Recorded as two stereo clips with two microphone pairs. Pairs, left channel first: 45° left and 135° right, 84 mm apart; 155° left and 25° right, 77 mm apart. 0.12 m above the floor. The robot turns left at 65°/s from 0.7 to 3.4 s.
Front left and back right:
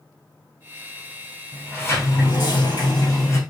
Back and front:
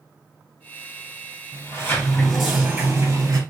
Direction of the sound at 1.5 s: 125° left.